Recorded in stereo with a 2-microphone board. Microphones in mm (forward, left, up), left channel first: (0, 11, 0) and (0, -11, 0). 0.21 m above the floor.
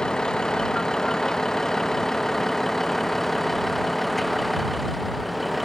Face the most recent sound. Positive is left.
turn(degrees=0)  # may be behind; listen again after turning